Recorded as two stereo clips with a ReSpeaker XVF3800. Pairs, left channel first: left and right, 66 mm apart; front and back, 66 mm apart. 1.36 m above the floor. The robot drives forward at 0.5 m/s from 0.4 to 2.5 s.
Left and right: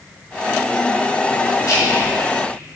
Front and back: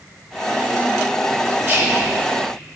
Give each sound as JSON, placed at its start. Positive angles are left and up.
{"t": 1.6, "sound": "whispering", "azimuth_deg": 120, "distance_m": 1.9}